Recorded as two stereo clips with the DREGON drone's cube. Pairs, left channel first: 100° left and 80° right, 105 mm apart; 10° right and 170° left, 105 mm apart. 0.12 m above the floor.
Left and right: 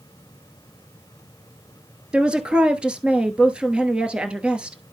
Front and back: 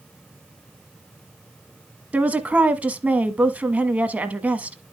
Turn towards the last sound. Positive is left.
turn(degrees=-140)